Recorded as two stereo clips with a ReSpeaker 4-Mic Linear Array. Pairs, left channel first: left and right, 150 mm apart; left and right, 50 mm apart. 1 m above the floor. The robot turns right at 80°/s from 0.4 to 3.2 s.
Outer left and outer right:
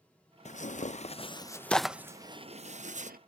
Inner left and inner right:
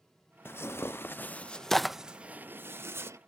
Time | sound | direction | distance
0.5 | tearing paper | 50° left (ahead or behind) | ?
2.1 | a sliding door | 165° right | ?